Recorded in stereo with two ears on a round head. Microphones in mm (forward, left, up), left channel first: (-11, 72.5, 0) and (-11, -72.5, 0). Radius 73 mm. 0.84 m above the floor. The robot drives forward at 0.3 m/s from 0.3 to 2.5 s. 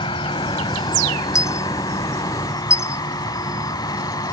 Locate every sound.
0.0 s an insect: 30° left (ahead or behind); by 4.3 s 25° left (ahead or behind)
1.4 s a dropped coin: 20° left (ahead or behind)